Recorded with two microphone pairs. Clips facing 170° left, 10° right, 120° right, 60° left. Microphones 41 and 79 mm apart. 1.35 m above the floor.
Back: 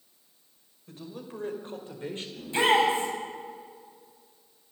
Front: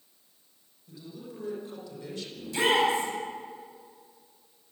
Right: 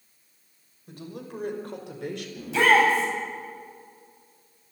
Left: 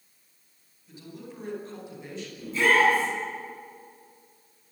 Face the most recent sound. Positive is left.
turn(degrees=-130)